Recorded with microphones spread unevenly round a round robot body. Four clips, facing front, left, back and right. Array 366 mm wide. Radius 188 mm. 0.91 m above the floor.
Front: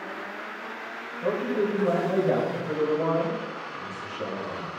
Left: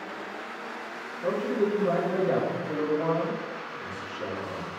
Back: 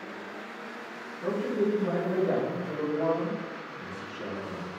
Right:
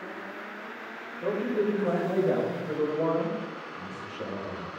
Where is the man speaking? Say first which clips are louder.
Left 1 dB, front 2 dB; 75° right, 3 m; by 4.7 s 40° right, 5.5 m.